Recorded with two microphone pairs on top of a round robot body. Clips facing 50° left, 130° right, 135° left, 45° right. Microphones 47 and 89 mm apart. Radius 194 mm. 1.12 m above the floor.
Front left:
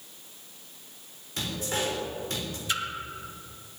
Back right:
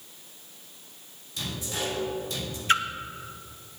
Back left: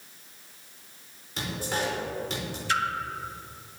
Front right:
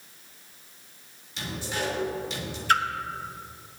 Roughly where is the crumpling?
No crumpling in this recording.